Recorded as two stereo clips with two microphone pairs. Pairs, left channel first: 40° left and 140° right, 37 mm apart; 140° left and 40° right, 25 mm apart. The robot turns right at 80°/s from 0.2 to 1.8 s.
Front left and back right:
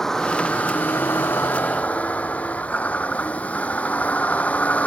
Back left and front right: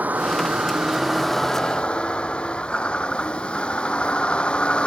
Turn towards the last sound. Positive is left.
turn(degrees=90)